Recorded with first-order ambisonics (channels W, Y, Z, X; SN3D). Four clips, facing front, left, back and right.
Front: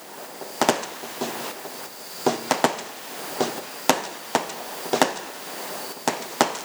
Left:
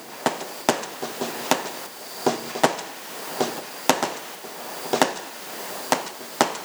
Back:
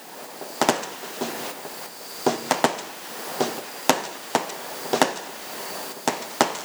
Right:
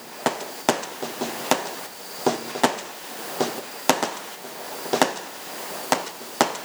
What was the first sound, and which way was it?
Only background noise.